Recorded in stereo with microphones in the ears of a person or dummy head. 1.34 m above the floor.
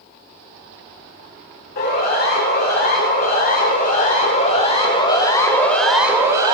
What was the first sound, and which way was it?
A siren, 60° left (ahead or behind).